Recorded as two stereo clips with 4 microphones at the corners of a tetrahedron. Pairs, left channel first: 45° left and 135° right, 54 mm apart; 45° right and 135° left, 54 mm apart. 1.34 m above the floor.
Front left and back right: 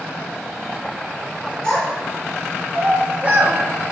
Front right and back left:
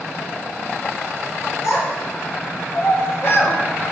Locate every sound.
1.6 s a child speaking: 30° right, 1.4 m; by 3.6 s 105° right, 0.5 m